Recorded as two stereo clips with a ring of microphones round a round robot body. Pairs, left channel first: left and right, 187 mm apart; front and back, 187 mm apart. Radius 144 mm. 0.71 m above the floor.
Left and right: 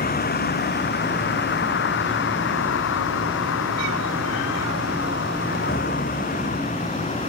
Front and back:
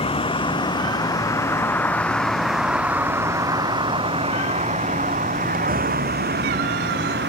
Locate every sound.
0.0 s a vehicle: 60° left; by 7.3 s 155° left